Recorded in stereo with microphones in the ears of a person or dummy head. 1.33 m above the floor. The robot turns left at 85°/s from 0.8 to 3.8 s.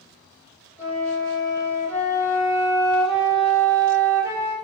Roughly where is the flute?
Behind.